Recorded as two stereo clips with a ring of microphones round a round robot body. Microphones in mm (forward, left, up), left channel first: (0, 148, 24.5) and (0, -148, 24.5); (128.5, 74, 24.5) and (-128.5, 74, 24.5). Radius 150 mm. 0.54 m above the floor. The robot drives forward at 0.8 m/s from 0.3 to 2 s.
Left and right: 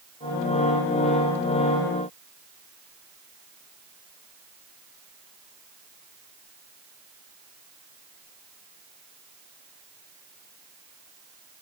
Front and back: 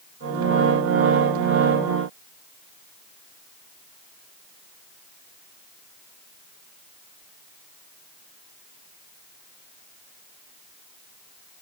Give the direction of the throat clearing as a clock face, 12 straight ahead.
I don't hear throat clearing.